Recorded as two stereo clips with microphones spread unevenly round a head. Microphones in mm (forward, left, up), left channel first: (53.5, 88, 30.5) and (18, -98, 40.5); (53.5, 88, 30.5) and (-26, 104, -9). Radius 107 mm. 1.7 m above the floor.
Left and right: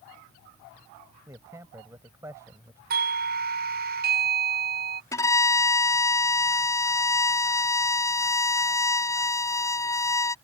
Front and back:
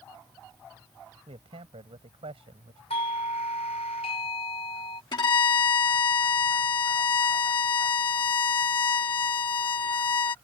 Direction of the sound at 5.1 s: 5° left.